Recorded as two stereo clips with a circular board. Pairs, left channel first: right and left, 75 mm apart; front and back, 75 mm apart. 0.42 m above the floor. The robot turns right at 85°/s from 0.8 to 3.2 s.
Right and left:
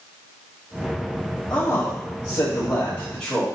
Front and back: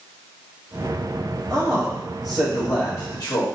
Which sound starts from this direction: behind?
A man speaking, at 1.5 s.